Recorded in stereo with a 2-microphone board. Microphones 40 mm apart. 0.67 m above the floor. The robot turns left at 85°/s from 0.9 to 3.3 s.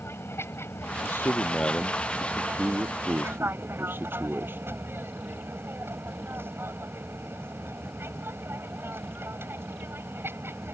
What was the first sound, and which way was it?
An aircraft, 95° left.